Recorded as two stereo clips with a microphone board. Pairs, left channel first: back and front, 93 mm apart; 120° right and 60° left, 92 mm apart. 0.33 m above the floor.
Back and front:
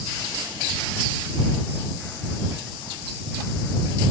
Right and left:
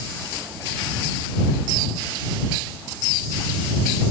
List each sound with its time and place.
Only background noise.